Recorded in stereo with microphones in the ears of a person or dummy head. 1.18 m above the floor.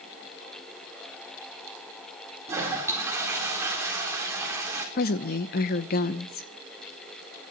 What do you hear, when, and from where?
2.5 s a toilet flushing: 10° right (ahead or behind), 3.5 m
5.0 s a woman speaking: 45° left (ahead or behind), 0.9 m